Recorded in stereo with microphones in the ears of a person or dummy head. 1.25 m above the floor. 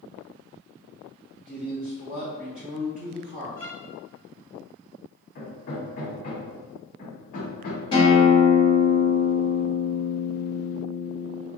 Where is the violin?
10° left (ahead or behind), 1.0 m.